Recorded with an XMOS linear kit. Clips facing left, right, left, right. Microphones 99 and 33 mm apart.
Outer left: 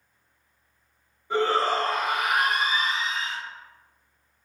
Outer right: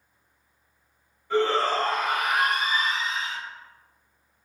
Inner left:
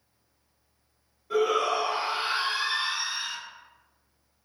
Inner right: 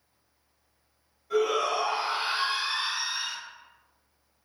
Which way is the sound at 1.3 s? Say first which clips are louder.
Even, inner left 1 dB; 15° left (ahead or behind).